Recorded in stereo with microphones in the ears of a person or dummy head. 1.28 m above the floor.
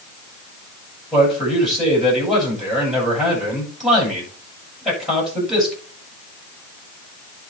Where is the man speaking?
5° right (ahead or behind), 8.5 m.